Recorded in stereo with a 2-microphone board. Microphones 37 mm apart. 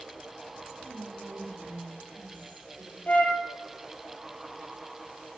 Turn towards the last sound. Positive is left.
turn(degrees=50)  # may be behind; listen again after turning